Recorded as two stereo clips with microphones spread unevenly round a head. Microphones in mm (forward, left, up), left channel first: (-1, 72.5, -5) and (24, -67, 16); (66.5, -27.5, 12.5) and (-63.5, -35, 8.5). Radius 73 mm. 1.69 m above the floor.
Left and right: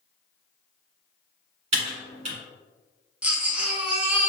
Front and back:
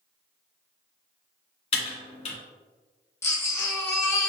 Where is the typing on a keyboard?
35° right, 1.4 m.